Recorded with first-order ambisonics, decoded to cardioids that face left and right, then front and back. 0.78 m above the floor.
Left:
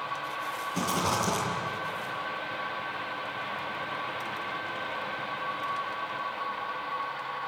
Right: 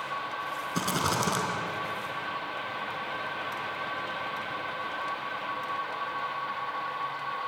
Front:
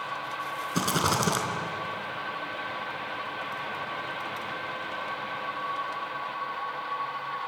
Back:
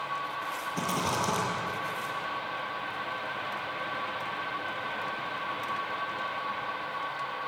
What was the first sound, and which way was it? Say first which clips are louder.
A rattle: even, front 4 dB; 20° right.